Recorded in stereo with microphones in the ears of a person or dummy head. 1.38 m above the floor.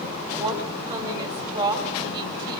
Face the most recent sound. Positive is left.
turn(degrees=-25)  # may be behind; listen again after turning